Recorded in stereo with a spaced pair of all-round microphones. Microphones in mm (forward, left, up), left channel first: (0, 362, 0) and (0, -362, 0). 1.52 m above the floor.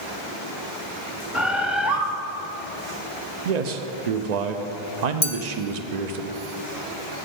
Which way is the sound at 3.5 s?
65° right (ahead or behind).